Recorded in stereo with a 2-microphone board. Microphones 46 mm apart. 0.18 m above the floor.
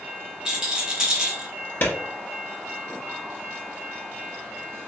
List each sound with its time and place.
0.5 s a rattle: 15° right (ahead or behind), 1.6 m
1.8 s a clap: 45° left (ahead or behind), 1.8 m